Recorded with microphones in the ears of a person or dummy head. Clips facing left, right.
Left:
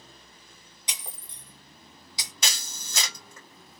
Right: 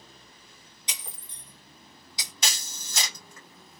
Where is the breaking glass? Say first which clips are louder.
Left 1 dB; 65° left (ahead or behind), 1.4 m.